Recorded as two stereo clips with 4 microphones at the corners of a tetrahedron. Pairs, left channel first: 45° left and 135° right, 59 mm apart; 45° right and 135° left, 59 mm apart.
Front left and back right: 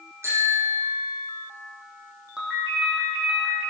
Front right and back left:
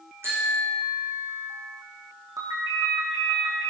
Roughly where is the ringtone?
Behind left.